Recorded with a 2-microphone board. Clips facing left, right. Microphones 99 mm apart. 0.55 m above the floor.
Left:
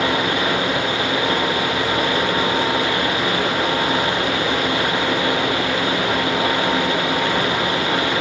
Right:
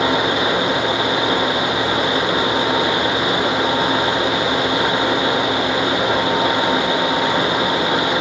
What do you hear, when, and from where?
Only background noise.